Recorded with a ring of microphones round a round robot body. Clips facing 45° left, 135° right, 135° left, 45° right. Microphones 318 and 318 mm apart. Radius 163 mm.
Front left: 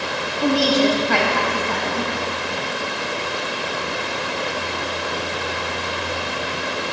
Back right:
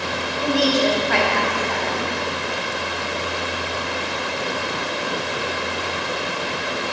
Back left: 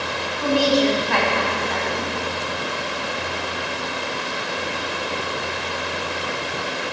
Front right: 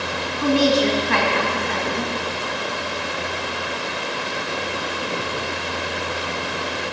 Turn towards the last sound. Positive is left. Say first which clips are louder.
# front left 2 dB, front right 1 dB
turn(degrees=15)